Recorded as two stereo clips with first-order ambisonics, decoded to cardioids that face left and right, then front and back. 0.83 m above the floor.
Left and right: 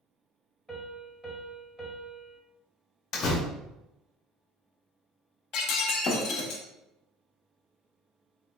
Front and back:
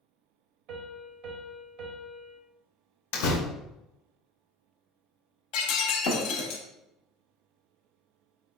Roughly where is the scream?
No scream in this recording.